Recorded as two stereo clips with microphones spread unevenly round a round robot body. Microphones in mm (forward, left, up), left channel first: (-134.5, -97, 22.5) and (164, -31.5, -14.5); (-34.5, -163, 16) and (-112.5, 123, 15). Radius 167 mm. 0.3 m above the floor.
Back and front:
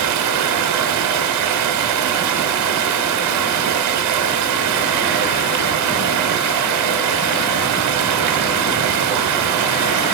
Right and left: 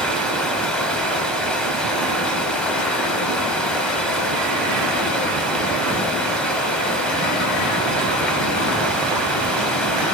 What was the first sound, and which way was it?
Running water, 10° left.